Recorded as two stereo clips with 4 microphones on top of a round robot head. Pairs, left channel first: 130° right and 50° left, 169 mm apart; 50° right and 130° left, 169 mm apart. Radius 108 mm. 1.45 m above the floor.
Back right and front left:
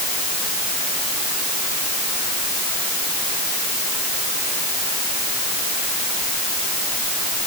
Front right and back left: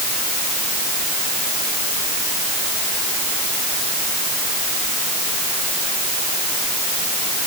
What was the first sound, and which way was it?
Only background noise.